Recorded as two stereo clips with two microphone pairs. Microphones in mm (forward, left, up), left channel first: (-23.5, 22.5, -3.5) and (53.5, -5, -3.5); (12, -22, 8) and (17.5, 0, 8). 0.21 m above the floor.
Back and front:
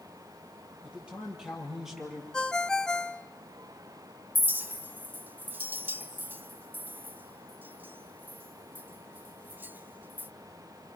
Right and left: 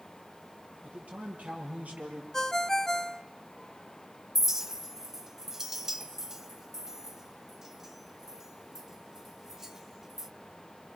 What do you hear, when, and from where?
0.8 s a man speaking: 55° left, 6.5 m; by 2.2 s 65° left, 6 m
2.3 s a ringtone: 130° right, 0.5 m
4.3 s a clink: 10° left, 0.8 m